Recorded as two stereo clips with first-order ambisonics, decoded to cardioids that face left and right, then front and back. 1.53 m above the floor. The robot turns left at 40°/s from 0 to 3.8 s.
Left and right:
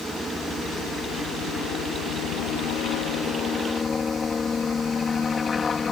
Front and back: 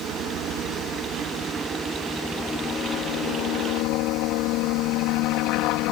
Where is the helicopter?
170° left; by 5.9 s 20° left.